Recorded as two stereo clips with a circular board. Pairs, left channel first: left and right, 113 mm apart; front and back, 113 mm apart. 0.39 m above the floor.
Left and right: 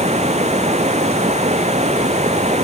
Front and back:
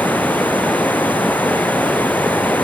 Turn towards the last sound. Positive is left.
turn(degrees=-80)